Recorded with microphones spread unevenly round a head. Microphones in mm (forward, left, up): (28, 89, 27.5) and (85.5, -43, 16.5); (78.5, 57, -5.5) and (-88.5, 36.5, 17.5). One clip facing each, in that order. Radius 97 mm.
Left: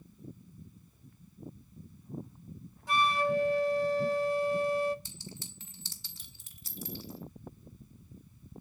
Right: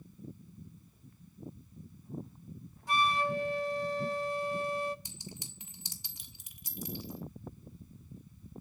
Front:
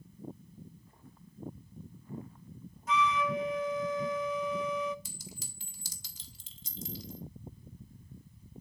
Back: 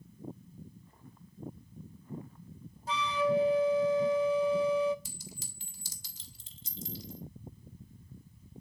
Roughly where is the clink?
Ahead.